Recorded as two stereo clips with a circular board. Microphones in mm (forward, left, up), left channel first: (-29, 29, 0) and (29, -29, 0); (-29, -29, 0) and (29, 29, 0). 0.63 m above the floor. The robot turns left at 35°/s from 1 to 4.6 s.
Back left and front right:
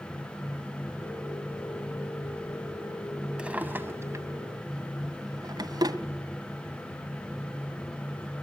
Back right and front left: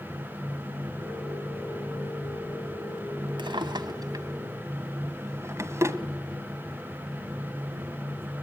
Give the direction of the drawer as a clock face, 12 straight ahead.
11 o'clock.